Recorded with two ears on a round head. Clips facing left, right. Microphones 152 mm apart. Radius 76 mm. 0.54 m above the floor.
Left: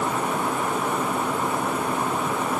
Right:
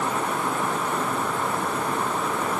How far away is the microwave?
No microwave in this recording.